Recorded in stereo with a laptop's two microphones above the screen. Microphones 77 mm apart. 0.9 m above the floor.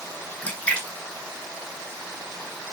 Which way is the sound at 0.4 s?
20° left (ahead or behind).